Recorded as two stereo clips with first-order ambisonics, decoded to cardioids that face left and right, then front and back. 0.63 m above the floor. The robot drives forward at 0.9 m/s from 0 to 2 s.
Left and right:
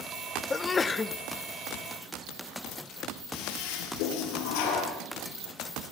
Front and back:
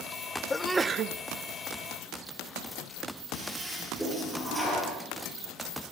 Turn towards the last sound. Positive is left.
turn(degrees=95)